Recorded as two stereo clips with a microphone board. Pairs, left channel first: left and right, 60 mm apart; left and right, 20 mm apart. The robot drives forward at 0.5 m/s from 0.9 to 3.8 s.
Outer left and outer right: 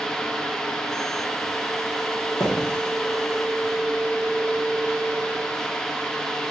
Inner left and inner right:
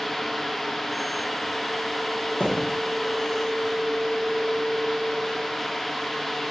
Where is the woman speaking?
No woman speaking in this recording.